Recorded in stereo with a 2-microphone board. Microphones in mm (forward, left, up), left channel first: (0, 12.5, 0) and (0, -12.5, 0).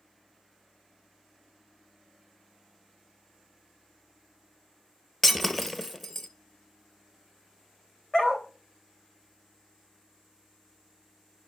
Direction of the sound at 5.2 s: 10° left (ahead or behind).